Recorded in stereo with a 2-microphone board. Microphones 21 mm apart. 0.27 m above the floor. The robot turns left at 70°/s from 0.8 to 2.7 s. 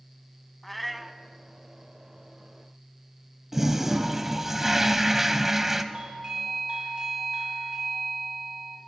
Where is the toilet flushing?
10° right (ahead or behind), 0.6 m.